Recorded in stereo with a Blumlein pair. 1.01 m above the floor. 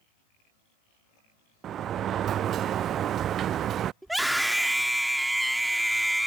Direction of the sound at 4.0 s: 5° right.